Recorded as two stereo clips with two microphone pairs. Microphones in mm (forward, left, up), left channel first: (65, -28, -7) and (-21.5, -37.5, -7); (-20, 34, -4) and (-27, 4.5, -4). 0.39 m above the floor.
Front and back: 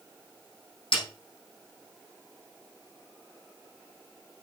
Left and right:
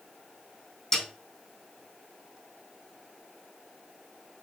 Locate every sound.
0.9 s a snare drum: 5° right, 5 m